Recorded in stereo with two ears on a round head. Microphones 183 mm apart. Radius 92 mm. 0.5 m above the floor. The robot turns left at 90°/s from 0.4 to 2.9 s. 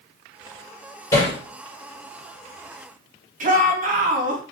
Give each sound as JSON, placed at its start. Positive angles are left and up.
{"t": 1.1, "sound": "hammering", "side_deg": 20, "distance_m": 5.5}
{"t": 3.4, "sound": "a shout", "side_deg": -40, "distance_m": 3.5}